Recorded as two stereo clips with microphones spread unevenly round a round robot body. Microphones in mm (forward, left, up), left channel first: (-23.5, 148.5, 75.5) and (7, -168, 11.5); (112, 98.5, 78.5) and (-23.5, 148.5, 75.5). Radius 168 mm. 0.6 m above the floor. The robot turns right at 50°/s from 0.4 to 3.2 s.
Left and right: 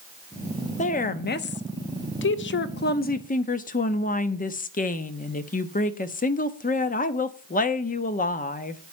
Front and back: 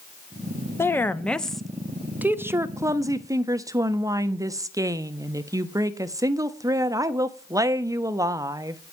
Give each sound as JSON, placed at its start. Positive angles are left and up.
{"t": 0.8, "sound": "a woman speaking", "azimuth_deg": 30, "distance_m": 1.1}